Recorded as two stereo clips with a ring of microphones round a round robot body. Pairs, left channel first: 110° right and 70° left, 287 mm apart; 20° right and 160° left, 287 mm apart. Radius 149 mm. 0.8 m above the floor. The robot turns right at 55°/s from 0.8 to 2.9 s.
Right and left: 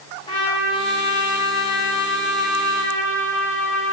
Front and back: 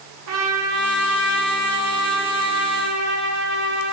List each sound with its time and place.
0.3 s a trumpet: 175° left, 1.9 m; by 3.9 s 70° right, 1.9 m